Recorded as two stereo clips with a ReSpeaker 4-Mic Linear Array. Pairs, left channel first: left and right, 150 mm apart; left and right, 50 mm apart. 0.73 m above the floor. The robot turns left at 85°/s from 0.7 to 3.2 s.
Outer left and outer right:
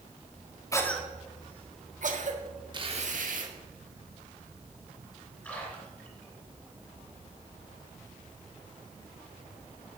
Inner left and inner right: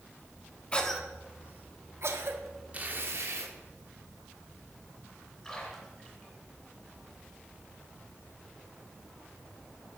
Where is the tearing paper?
30° right, 1.1 m; by 3.5 s 70° right, 1.1 m.